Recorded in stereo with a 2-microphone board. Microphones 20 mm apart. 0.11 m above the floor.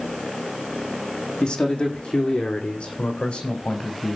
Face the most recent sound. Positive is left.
turn(degrees=80)